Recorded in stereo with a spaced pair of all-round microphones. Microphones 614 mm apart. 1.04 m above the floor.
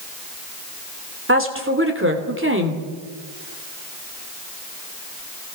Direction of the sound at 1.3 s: 20° right (ahead or behind).